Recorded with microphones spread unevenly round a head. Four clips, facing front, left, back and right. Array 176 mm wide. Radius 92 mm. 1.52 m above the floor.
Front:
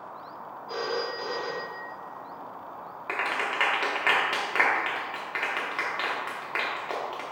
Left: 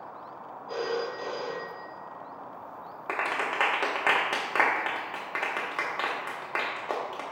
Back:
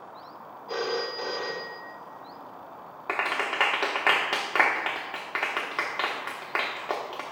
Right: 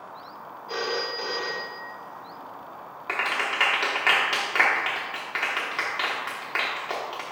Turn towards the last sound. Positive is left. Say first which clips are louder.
# right 2 dB, back 1 dB
turn(degrees=140)